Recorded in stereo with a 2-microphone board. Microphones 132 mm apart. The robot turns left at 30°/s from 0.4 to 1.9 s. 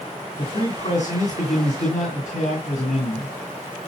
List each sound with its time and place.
0.4 s a man speaking: 125° left, 3 m; by 3.4 s 80° left, 3 m